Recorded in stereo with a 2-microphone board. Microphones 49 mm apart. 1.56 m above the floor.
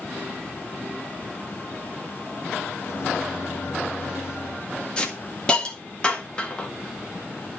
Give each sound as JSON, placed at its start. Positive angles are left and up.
{"t": 2.8, "sound": "a microwave", "side_deg": 60, "distance_m": 2.5}
{"t": 5.0, "sound": "a hiss", "side_deg": 20, "distance_m": 1.7}